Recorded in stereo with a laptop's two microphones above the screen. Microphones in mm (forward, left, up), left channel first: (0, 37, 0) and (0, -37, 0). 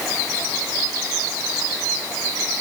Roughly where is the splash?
I don't hear a splash.